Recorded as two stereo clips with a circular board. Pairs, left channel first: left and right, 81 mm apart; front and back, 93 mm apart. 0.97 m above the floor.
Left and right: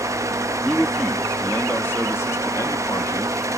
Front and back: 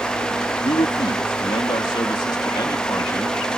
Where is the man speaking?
Straight ahead; by 3.4 s 55° left.